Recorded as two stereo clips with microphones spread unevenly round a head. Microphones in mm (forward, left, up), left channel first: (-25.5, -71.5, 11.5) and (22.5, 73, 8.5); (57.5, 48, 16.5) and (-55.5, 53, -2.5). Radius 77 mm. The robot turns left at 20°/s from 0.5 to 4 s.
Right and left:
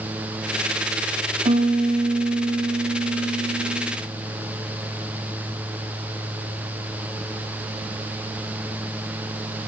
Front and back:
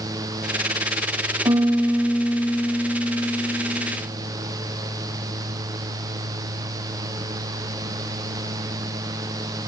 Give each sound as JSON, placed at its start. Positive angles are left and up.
{"t": 1.4, "sound": "a piano", "azimuth_deg": 125, "distance_m": 0.9}